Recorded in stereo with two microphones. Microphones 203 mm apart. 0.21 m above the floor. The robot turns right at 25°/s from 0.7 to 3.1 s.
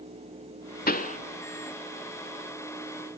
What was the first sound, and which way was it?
A pop, 45° left (ahead or behind).